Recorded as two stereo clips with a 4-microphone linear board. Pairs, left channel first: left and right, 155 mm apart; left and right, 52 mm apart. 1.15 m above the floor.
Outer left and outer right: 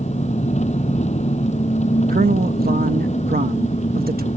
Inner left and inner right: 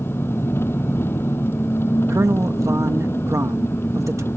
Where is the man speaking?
75° right (ahead or behind).